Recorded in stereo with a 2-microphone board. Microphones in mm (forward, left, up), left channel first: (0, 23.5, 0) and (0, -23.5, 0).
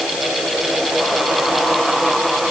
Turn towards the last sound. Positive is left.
No sound to turn to.